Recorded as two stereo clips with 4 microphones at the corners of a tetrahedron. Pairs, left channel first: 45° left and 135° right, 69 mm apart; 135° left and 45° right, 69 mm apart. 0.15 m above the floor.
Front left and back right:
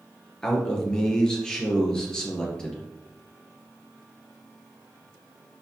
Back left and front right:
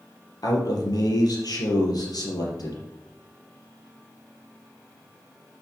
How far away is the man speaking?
About 3.5 m.